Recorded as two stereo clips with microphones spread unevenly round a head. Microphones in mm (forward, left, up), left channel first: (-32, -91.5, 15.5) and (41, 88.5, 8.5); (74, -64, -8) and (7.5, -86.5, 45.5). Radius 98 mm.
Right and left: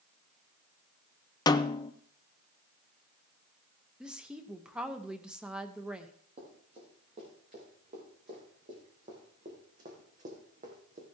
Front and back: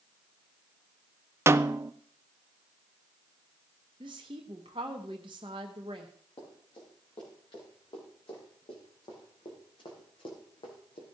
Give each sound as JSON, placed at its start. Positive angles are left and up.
{"t": 1.5, "sound": "a snare drum", "azimuth_deg": -60, "distance_m": 0.5}
{"t": 4.0, "sound": "a woman speaking", "azimuth_deg": 155, "distance_m": 1.0}
{"t": 6.4, "sound": "running footsteps", "azimuth_deg": 15, "distance_m": 6.0}